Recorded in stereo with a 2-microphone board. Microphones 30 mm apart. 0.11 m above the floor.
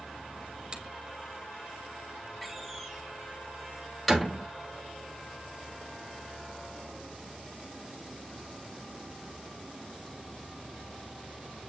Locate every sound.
0.7 s a finger snap: 25° right (ahead or behind), 3 m
2.4 s a door slam: 5° left (ahead or behind), 3 m